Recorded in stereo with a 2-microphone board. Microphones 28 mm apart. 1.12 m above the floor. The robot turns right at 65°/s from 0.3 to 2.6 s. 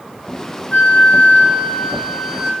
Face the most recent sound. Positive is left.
turn(degrees=180)